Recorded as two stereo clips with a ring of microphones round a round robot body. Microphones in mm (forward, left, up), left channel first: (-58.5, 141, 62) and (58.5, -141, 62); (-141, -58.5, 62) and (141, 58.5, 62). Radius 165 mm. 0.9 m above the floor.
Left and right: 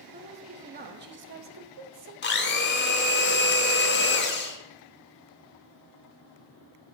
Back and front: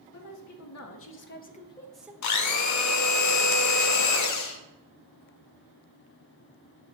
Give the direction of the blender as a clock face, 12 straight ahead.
6 o'clock.